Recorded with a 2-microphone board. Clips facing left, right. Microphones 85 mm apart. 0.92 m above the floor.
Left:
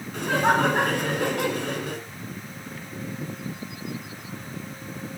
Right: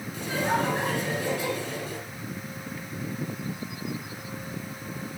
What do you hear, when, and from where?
0.1 s laughter: 75° left (ahead or behind), 6 m